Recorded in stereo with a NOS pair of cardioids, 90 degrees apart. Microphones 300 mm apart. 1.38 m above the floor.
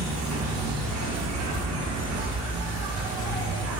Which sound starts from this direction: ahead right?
An insect, at 0.0 s.